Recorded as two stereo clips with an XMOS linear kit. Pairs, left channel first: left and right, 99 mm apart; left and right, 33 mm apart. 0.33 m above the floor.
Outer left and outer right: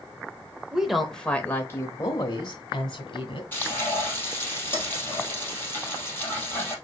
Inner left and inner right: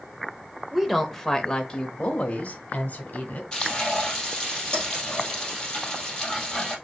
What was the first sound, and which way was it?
A woman speaking, 10° right (ahead or behind).